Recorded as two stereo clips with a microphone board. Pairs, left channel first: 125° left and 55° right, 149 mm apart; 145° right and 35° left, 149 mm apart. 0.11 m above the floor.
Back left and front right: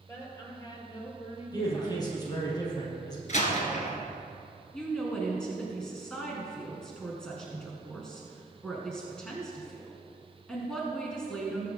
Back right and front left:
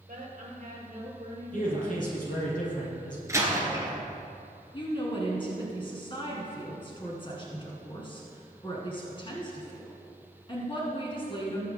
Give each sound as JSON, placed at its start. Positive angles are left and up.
{"t": 0.1, "sound": "a woman speaking", "azimuth_deg": 55, "distance_m": 3.5}
{"t": 1.5, "sound": "a man speaking", "azimuth_deg": -175, "distance_m": 3.5}
{"t": 3.3, "sound": "a door slam", "azimuth_deg": 100, "distance_m": 1.8}
{"t": 4.7, "sound": "a woman speaking", "azimuth_deg": -155, "distance_m": 1.9}